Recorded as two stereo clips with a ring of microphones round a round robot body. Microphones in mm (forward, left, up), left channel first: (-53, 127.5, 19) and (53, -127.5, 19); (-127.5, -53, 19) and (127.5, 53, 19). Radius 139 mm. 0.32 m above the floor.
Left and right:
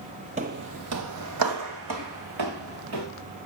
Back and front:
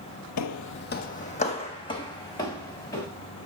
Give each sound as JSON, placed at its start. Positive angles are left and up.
{"t": 0.4, "sound": "footsteps", "azimuth_deg": -135, "distance_m": 0.6}